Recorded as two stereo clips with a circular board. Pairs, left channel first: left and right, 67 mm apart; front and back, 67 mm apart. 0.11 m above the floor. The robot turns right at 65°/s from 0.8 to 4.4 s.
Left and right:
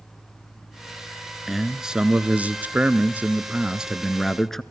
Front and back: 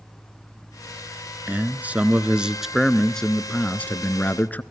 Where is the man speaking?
Straight behind, 1.1 m; by 4.6 s 10° left, 1.1 m.